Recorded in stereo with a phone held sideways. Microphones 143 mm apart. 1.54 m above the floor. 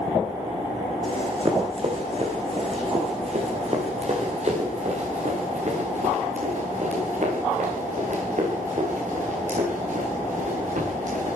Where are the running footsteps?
40° right (ahead or behind), 5.5 m; by 11.4 s 60° right (ahead or behind), 13.5 m.